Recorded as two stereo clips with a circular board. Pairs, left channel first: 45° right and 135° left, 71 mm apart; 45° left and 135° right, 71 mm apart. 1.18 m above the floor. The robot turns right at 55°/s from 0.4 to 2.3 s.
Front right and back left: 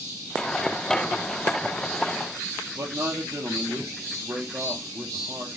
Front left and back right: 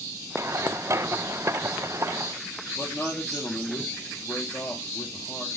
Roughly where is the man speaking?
Left.